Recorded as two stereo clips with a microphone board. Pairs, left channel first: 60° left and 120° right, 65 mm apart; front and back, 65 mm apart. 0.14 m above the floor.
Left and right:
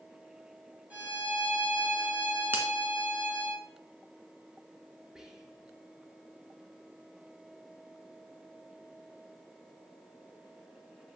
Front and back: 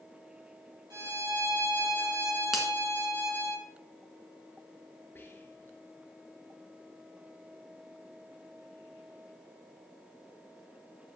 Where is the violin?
175° left, 4.5 m.